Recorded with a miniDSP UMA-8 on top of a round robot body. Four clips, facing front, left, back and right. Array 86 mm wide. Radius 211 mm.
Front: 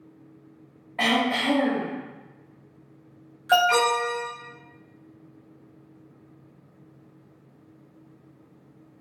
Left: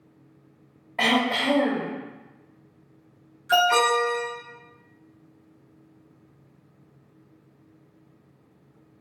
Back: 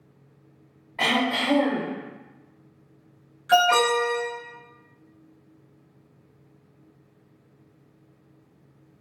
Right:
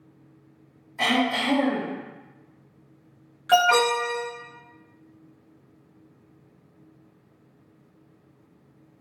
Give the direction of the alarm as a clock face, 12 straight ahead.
3 o'clock.